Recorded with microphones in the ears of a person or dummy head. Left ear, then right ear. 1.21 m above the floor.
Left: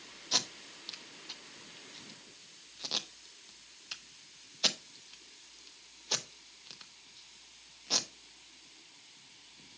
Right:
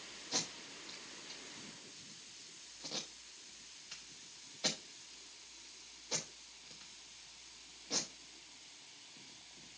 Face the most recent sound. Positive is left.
turn(degrees=40)  # may be behind; listen again after turning